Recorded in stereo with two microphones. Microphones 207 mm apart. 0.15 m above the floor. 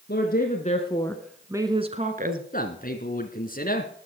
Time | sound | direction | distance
0.1 | a woman speaking | 55° left (ahead or behind) | 2 m
2.5 | a man speaking | 45° left (ahead or behind) | 1.7 m